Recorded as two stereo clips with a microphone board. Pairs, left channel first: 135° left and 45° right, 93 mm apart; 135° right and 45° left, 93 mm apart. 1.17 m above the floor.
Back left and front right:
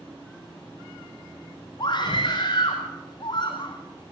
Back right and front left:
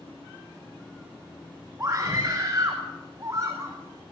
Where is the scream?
110° left, 5.5 m.